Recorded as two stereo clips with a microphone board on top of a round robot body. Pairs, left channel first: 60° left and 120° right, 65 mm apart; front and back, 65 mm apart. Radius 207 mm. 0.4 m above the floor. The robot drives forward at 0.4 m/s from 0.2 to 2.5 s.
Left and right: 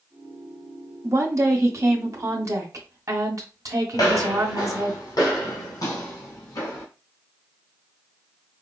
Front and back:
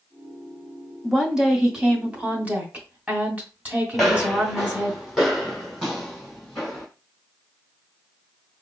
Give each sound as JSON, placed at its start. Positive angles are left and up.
{"t": 1.0, "sound": "a woman speaking", "azimuth_deg": -90, "distance_m": 1.7}
{"t": 3.9, "sound": "footsteps", "azimuth_deg": 85, "distance_m": 0.8}